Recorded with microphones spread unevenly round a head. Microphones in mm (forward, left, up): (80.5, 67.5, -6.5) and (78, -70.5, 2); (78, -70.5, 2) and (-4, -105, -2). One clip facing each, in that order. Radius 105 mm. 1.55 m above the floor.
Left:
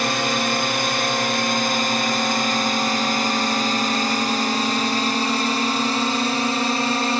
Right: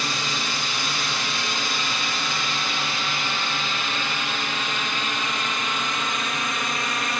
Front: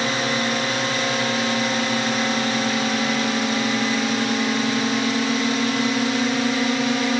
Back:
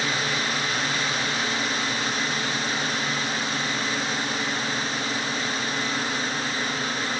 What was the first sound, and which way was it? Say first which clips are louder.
A drone: left 8 dB, front 4 dB; 70° left.